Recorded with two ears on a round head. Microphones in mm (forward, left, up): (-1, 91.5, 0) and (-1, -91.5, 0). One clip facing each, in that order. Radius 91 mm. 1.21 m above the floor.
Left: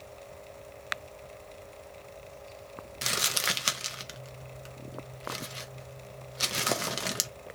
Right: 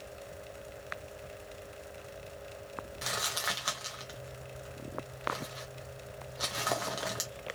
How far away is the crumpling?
About 0.7 m.